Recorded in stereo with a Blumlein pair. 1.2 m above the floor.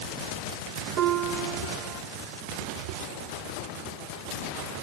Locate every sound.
1.0 s a piano: 50° right, 2 m